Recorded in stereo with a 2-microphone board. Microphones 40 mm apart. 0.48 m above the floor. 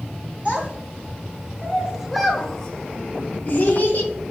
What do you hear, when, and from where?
0.5 s a child speaking: 30° right (ahead or behind), 1.7 m; by 4.1 s 50° left (ahead or behind), 1.0 m